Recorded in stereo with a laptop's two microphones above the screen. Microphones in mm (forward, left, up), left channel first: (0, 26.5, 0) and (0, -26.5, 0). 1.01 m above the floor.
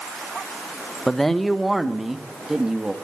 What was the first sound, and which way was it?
A man speaking, 10° left (ahead or behind).